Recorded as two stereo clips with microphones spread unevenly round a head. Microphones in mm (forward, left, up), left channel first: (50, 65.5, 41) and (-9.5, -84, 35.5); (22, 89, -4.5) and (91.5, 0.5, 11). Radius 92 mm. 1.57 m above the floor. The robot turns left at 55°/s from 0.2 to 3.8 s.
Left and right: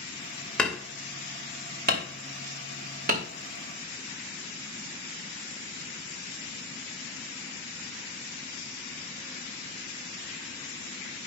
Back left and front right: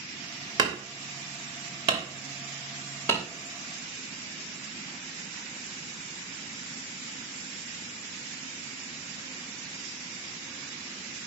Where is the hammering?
15° right, 2.5 m; by 3.3 s 160° right, 2.5 m.